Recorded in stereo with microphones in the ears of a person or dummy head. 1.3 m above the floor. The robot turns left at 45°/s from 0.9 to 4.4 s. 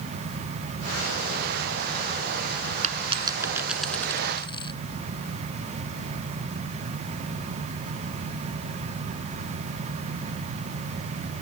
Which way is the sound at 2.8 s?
45° right (ahead or behind).